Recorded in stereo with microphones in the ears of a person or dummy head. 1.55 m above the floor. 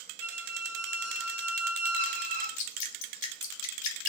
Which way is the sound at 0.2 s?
45° right (ahead or behind).